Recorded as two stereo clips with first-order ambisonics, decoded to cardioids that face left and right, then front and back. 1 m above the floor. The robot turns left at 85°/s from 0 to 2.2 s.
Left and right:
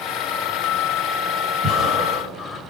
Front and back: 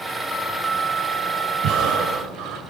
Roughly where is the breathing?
Behind right.